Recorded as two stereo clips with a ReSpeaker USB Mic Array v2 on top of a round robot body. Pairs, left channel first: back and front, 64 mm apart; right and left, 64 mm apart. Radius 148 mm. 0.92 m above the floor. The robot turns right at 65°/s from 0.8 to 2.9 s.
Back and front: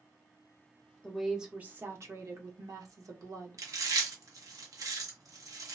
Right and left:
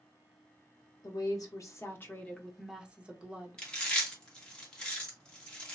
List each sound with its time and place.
1.0 s a woman speaking: 100° right, 1.0 m; by 3.6 s 20° left, 1.0 m
3.6 s chewing: 15° right, 1.3 m